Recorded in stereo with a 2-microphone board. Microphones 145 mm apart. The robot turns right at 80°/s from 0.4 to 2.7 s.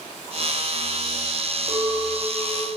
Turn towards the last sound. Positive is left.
turn(degrees=25)